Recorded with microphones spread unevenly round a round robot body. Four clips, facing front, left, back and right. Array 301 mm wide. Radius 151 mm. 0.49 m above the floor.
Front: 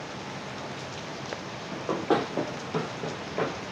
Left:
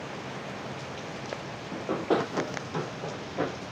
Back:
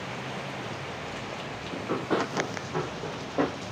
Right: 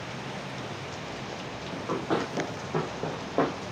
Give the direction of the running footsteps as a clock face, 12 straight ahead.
11 o'clock.